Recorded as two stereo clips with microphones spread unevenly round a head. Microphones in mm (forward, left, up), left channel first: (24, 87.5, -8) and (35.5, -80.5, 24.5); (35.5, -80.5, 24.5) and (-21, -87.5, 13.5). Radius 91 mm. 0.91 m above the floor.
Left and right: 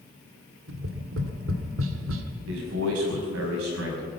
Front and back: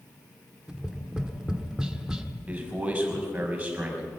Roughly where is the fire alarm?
No fire alarm in this recording.